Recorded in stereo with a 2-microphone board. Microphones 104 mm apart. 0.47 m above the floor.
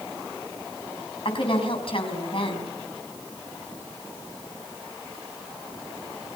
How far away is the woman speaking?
About 4.5 m.